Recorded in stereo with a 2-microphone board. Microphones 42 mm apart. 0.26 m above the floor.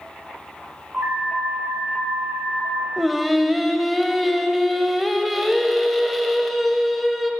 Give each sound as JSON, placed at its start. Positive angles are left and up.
{"t": 0.9, "sound": "an alarm", "side_deg": -40, "distance_m": 3.5}
{"t": 3.0, "sound": "singing", "side_deg": 0, "distance_m": 0.6}